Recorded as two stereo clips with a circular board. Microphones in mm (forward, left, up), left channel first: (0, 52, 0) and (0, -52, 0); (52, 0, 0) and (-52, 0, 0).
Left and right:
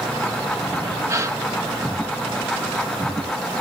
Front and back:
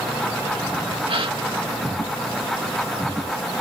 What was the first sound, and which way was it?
A gasp, 150° right.